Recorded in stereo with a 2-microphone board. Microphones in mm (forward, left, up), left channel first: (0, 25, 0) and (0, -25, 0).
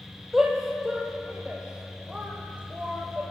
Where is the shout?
5° right (ahead or behind), 5 m; by 3.3 s 30° right (ahead or behind), 7.5 m.